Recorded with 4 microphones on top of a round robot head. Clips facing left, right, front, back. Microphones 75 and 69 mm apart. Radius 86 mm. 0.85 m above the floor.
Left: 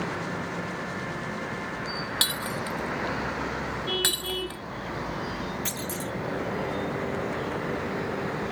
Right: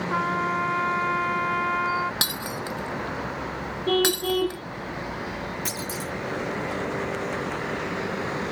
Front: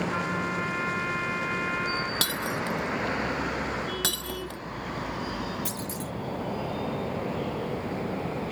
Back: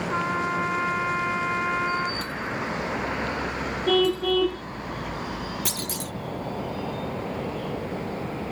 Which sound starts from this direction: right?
A trumpet, at 0.1 s.